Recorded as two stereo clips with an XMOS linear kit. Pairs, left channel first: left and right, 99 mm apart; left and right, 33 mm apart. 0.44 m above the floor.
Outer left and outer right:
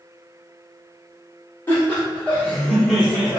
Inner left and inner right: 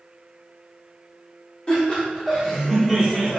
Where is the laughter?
25° left (ahead or behind), 1.7 m; by 3.4 s 10° right (ahead or behind), 1.4 m.